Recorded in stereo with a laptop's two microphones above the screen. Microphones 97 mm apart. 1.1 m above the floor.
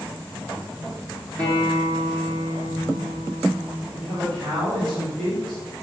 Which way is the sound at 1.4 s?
45° right (ahead or behind).